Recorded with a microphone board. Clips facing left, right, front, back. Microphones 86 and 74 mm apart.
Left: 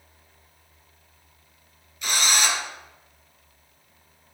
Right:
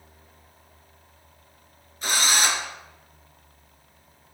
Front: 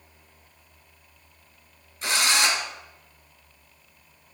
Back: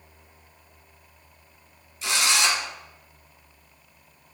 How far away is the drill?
About 1.8 m.